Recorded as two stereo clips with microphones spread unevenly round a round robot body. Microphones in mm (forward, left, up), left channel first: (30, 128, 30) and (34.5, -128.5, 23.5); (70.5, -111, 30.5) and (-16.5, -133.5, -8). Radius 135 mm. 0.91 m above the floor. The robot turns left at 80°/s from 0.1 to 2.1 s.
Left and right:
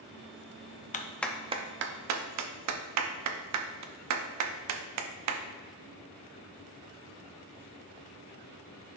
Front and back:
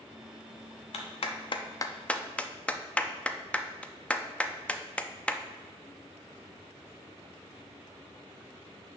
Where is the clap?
30° left, 0.7 m; by 5.4 s 65° right, 0.7 m.